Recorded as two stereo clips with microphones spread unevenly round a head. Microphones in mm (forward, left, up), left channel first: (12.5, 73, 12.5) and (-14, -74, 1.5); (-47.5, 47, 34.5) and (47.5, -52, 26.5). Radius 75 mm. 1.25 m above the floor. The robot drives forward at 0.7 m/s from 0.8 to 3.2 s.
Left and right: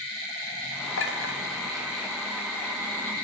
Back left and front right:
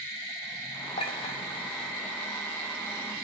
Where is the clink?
80° left, 3 m; by 1.4 s 85° left, 3 m.